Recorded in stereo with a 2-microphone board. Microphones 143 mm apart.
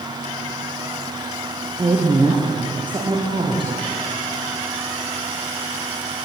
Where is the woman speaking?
35° right (ahead or behind), 3.5 m.